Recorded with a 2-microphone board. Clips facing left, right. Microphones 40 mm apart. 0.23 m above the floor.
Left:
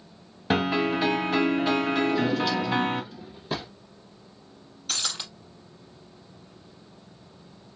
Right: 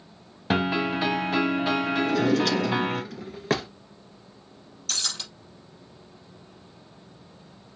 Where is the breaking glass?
15° left (ahead or behind), 3.5 m.